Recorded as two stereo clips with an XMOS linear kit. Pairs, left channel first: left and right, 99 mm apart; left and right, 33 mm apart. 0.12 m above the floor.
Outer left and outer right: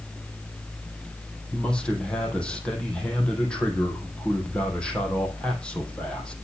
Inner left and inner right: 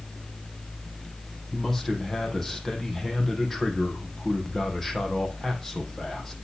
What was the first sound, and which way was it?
A man speaking, 10° left (ahead or behind).